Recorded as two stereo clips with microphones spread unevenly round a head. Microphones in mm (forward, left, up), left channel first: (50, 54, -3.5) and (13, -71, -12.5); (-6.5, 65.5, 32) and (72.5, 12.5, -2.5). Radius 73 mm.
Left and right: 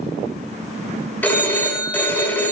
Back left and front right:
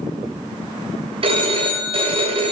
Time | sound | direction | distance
1.2 | a phone ringing | straight ahead | 3.5 m